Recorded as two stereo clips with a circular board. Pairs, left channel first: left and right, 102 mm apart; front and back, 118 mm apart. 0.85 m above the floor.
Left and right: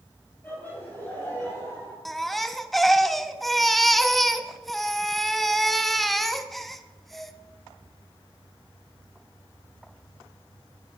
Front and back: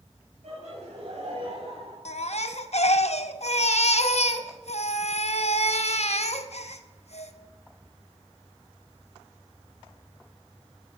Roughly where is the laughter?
Behind.